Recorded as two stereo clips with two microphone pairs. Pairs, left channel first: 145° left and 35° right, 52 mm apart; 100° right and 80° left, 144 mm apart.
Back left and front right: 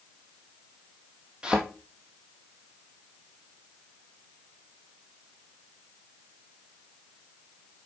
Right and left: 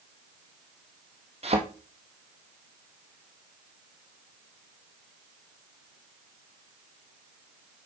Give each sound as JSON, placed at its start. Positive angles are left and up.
{"t": 1.4, "sound": "a thud", "azimuth_deg": 35, "distance_m": 1.4}